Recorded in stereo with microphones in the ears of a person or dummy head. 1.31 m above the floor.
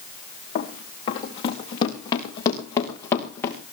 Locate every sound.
0.6 s running footsteps: 40° left (ahead or behind), 4.5 m; by 3.6 s 20° left (ahead or behind), 5 m